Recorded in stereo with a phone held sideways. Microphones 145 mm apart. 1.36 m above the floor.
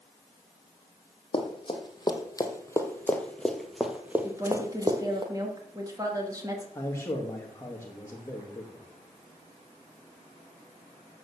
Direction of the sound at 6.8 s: 20° left (ahead or behind).